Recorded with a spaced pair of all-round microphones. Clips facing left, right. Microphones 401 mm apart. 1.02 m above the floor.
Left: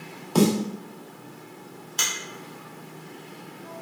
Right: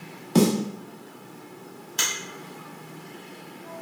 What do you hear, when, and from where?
0.3 s a snare drum: 35° right (ahead or behind), 0.5 m
2.0 s a finger snap: 20° right (ahead or behind), 0.9 m